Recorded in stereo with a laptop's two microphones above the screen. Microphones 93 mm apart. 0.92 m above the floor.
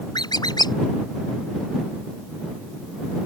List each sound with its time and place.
0.1 s a squeak: 50° left (ahead or behind)